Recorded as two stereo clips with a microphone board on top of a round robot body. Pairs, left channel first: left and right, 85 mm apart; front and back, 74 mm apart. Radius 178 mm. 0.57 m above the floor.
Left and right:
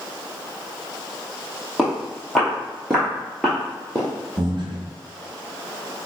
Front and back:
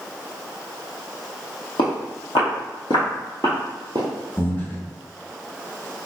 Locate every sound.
1.8 s footsteps: straight ahead, 1.4 m; by 4.1 s 170° left, 0.5 m
4.4 s breathing: 65° right, 0.9 m